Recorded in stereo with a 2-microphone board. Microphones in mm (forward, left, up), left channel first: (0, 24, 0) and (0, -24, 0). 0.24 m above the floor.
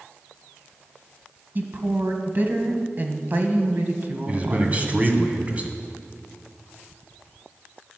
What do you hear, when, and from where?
1.6 s a woman speaking: 45° right (ahead or behind), 1.4 m
4.3 s a man speaking: 30° right (ahead or behind), 1.6 m